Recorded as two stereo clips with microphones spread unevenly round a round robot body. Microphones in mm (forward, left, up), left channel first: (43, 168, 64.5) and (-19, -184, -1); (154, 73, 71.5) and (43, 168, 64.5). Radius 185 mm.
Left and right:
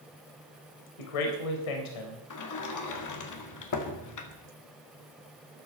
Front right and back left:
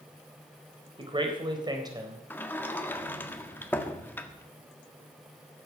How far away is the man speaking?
About 3.5 m.